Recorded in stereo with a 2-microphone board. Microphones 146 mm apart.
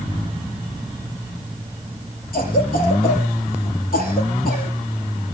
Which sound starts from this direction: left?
A cough, at 2.3 s.